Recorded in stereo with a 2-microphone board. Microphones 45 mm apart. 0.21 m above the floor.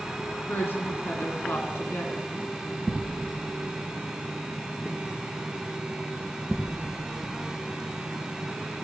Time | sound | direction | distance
0.5 | a woman speaking | 55° left (ahead or behind) | 2 m